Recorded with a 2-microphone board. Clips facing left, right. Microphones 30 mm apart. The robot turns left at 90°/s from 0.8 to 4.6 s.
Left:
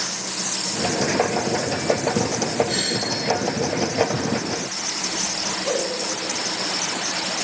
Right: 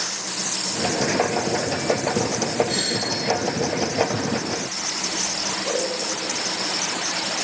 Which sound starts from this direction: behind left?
A doorbell, at 2.7 s.